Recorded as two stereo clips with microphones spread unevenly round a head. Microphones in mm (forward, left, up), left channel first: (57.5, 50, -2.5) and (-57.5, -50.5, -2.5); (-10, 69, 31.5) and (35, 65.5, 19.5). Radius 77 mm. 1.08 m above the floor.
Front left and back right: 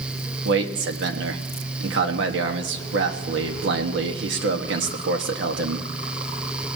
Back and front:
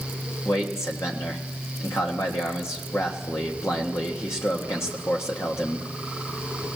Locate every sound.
0.5 s a man speaking: 130° right, 1.5 m